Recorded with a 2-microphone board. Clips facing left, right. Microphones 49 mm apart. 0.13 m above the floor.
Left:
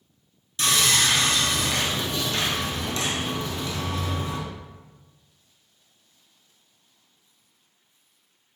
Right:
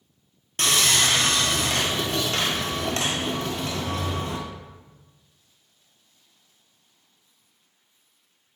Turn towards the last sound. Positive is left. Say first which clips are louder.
# even
turn(degrees=-55)  # may be behind; listen again after turning